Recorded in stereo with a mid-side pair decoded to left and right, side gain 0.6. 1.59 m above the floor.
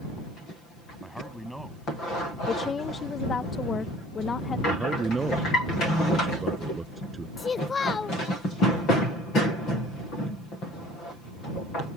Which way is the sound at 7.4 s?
25° left.